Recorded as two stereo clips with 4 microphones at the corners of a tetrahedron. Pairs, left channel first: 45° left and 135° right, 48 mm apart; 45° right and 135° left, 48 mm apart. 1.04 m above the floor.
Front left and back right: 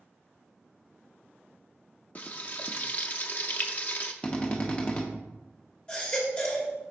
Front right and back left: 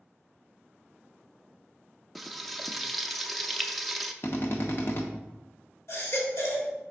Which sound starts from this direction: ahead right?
A baby crying, at 5.9 s.